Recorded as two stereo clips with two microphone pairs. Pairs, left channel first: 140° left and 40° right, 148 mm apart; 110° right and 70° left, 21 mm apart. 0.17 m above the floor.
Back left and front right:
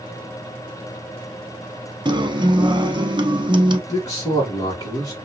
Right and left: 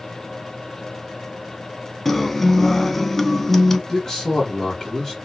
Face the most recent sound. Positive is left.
turn(degrees=-160)